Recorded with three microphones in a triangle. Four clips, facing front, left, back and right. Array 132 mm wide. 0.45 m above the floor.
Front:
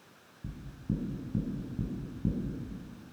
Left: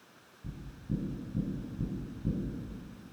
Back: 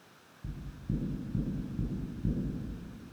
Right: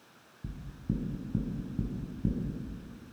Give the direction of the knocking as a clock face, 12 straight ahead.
2 o'clock.